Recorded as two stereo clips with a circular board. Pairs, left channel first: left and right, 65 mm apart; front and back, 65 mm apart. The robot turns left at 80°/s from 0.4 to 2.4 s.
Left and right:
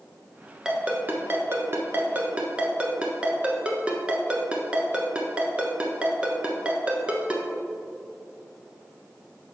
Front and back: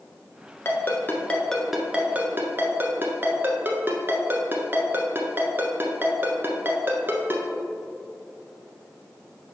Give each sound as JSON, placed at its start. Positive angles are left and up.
{"t": 0.7, "sound": "a ringtone", "azimuth_deg": -10, "distance_m": 0.9}